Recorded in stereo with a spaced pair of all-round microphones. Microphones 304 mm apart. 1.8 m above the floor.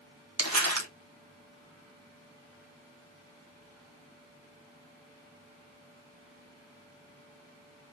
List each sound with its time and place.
0.4 s crumpling: 60° right (ahead or behind), 1.5 m